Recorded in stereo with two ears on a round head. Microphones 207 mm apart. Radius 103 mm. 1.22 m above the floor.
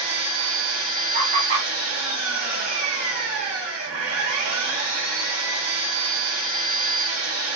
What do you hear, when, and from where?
0.0 s an engine running: 75° right (ahead or behind), 1.3 m
1.1 s laughter: 45° right (ahead or behind), 1.0 m